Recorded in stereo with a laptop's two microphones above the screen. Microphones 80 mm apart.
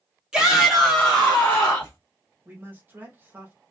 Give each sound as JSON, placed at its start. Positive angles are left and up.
{"t": 0.3, "sound": "a shout", "side_deg": -10, "distance_m": 1.4}
{"t": 2.5, "sound": "a man speaking", "side_deg": -25, "distance_m": 1.1}